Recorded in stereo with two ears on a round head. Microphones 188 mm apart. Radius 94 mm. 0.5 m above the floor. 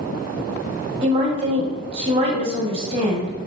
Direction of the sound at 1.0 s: 25° right (ahead or behind).